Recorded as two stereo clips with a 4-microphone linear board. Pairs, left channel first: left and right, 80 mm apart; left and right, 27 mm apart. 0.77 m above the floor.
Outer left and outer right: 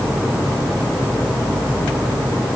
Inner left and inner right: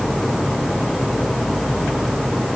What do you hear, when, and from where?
Only background noise.